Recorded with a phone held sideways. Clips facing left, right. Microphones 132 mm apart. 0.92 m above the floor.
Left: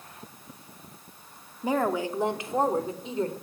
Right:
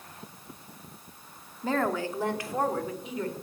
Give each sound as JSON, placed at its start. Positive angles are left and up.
{"t": 1.6, "sound": "a woman speaking", "side_deg": 15, "distance_m": 2.5}